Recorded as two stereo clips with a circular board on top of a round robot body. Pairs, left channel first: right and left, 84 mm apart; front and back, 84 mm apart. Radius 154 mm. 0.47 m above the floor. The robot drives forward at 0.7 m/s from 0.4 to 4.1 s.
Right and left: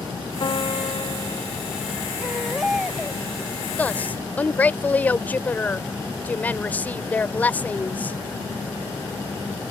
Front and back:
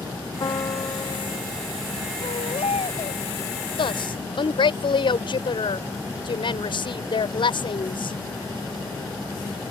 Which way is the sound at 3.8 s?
15° right.